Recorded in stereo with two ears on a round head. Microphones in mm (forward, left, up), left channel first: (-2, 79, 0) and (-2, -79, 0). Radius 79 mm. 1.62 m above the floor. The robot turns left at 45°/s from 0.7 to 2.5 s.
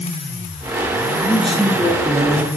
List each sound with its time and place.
1.2 s a man speaking: 10° left, 2.5 m; by 2.5 s 45° right, 2.5 m